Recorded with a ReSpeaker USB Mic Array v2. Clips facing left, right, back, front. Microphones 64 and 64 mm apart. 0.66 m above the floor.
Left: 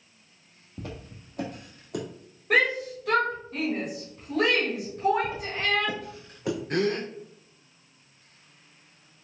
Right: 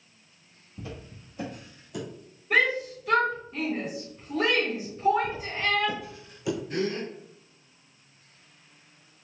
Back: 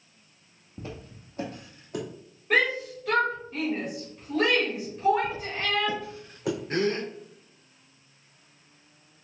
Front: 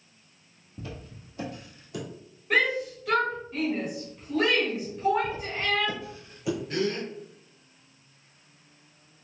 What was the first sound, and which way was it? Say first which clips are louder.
Footsteps: left 1 dB, back 1 dB; 125° left.